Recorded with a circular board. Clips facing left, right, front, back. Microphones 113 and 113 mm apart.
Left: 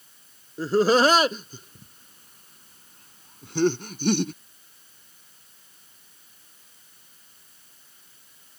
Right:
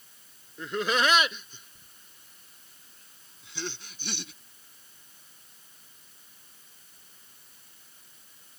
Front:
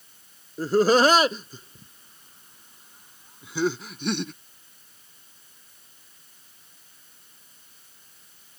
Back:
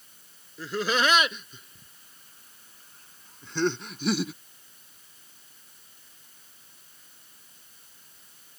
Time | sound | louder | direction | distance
0.6 | laughter | left 9 dB, front 9 dB | 40° left | ?